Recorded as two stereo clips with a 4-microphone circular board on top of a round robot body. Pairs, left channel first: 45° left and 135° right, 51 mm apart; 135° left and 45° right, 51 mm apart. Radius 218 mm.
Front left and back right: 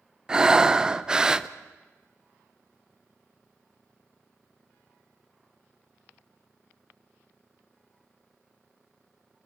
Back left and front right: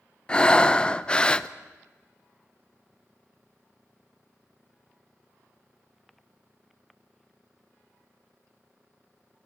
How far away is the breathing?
About 1.0 m.